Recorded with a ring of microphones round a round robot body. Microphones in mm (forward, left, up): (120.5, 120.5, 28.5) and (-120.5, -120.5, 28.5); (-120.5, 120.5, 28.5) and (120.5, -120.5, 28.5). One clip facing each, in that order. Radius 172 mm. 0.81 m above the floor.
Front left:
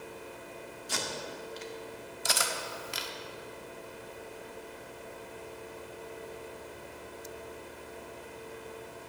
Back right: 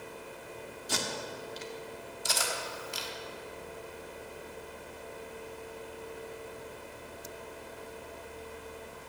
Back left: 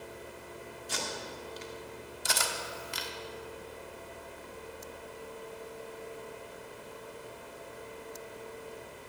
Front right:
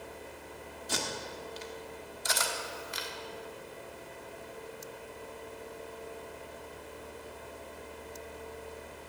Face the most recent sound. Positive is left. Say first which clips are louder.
# front left 1 dB, front right 1 dB
turn(degrees=80)